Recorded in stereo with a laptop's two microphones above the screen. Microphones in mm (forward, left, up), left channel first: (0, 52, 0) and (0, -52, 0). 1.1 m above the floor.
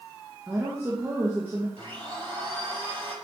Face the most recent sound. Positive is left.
turn(degrees=-55)  # may be behind; listen again after turning